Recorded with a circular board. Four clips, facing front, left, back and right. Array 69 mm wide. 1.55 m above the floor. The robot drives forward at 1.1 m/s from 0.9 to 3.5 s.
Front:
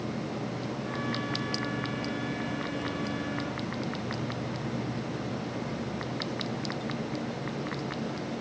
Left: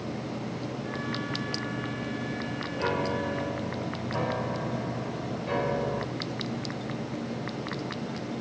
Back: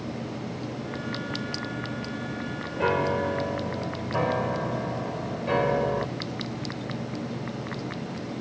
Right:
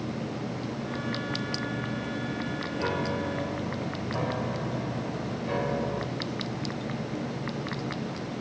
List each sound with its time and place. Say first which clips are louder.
2.8 s a piano: left 2 dB, back 8 dB; 170° left